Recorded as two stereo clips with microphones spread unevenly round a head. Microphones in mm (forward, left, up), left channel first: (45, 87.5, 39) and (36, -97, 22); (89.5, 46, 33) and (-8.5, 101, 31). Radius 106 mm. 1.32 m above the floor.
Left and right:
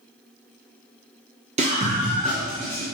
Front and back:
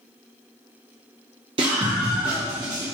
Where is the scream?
150° right, 1.1 m; by 2.9 s 145° right, 2.0 m.